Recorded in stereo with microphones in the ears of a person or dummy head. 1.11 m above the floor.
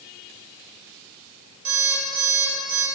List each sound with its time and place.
1.6 s an alarm clock: 80° right, 2 m